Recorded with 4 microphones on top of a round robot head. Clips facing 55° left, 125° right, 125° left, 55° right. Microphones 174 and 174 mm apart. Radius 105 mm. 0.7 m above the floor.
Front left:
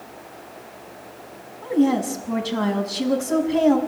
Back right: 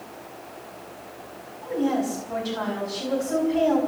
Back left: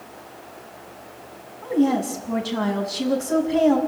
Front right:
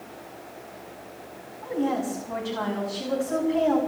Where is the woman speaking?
80° left, 6.5 m.